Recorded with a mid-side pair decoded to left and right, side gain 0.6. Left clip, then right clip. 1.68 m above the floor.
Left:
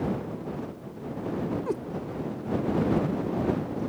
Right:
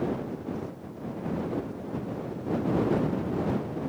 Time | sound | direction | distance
1.7 | a cat meowing | 70° left | ?